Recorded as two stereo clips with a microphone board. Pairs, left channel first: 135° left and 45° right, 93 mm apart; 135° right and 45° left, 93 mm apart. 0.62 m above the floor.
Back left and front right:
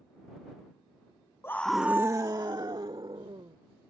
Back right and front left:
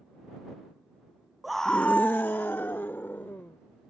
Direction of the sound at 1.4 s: 130° left.